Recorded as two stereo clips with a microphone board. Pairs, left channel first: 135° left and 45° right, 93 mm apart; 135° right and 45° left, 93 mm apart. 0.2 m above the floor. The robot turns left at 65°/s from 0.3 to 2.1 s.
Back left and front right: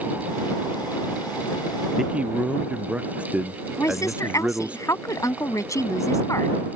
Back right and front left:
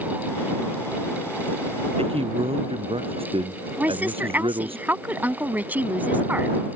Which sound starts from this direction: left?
A woman speaking, at 3.8 s.